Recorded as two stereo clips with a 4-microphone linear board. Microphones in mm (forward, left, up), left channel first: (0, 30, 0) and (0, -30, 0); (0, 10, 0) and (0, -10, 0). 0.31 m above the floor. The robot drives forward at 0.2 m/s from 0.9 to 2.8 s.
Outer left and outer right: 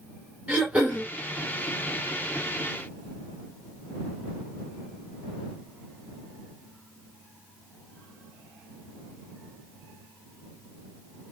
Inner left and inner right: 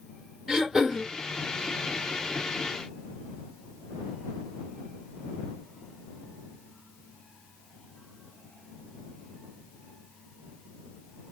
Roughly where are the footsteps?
I don't hear footsteps.